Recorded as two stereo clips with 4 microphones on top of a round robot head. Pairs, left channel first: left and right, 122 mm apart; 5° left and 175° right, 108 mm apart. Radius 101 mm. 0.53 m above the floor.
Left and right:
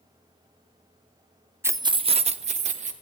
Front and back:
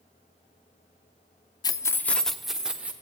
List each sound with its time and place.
1.6 s keys jangling: 25° right, 0.5 m; by 2.9 s 95° right, 1.1 m